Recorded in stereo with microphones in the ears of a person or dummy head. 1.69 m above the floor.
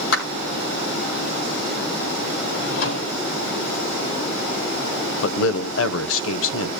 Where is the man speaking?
80° left, 0.7 m.